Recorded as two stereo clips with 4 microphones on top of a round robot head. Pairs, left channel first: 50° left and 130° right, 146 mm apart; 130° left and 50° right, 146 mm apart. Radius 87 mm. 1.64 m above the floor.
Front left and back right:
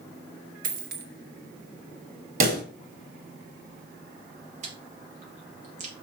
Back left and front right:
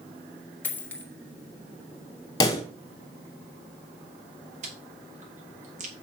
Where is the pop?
160° right, 2.0 m.